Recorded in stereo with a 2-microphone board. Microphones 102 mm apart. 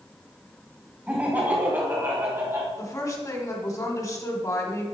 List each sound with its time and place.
1.1 s laughter: 15° right (ahead or behind), 1.5 m; by 2.7 s 35° right (ahead or behind), 1.8 m
2.8 s a woman speaking: 35° left (ahead or behind), 1.2 m